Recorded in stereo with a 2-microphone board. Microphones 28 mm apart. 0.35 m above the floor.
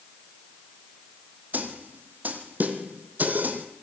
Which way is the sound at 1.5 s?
75° right (ahead or behind).